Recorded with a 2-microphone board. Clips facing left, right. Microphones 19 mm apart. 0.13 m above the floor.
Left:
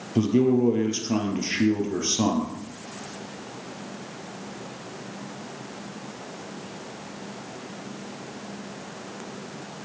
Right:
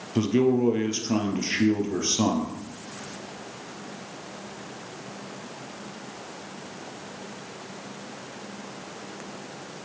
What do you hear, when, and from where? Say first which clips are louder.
0.1 s a man speaking: left 1 dB; 25° right (ahead or behind), 2.5 m